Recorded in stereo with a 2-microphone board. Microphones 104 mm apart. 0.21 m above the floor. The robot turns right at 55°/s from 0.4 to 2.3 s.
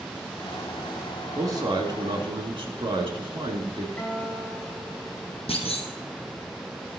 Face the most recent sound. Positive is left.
turn(degrees=75)  # may be behind; listen again after turning